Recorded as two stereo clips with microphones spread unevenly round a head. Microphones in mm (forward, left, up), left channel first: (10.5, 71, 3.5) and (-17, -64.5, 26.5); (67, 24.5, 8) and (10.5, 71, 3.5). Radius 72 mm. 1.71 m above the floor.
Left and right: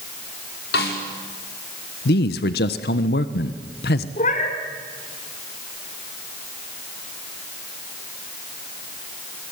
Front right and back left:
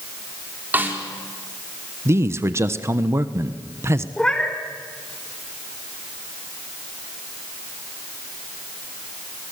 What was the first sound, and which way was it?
A snare drum, 80° left.